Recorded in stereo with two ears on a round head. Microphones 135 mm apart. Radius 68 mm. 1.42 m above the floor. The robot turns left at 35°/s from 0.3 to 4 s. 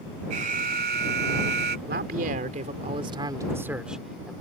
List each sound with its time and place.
0.3 s an alarm: 50° right; by 1.8 s 100° right
1.9 s a man speaking: 105° right; by 4.3 s 175° right